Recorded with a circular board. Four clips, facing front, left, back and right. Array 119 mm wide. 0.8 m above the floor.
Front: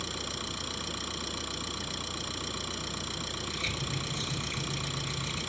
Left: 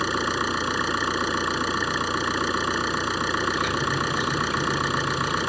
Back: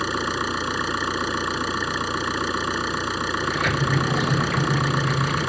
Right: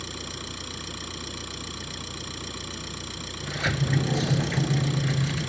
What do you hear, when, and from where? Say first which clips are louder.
0.0 s an engine running: left 14 dB, back 14 dB; 135° left
3.4 s a sliding door: left 5 dB, back 16 dB; 150° right